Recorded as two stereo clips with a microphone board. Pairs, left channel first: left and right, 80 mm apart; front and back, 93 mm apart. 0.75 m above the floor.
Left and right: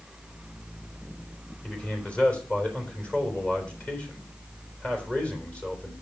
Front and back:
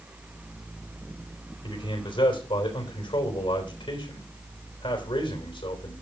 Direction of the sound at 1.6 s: 15° left.